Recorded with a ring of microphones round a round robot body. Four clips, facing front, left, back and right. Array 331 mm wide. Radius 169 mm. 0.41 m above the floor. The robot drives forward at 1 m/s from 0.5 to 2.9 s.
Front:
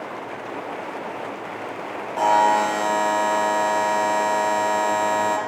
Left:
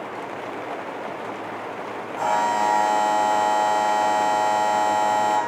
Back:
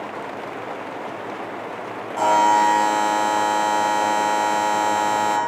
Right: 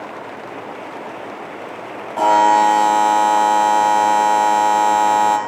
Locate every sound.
2.2 s a buzzer: 85° right, 5.5 m; by 5.4 s 90° right, 5.5 m